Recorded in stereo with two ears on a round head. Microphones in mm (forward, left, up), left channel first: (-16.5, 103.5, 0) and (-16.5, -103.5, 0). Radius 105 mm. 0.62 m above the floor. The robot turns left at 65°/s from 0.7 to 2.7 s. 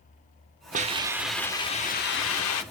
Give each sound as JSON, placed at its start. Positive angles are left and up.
{"t": 0.7, "sound": "a hiss", "azimuth_deg": -145, "distance_m": 0.8}